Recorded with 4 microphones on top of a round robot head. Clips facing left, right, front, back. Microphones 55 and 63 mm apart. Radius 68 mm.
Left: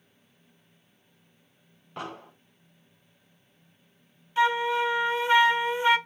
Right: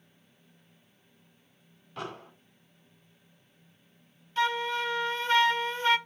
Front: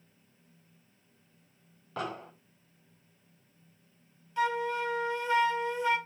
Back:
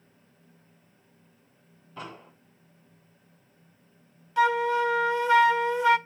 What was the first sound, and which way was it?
An explosion, 20° left.